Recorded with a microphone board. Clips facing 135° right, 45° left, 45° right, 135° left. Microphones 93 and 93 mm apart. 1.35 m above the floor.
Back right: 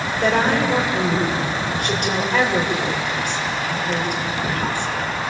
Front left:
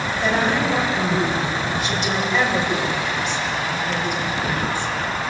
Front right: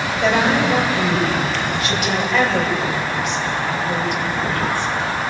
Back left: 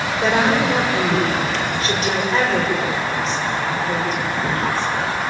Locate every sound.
0.2 s a woman speaking: 165° right, 6.5 m